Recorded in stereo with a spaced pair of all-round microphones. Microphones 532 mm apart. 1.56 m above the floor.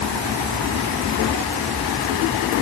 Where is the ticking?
No ticking in this recording.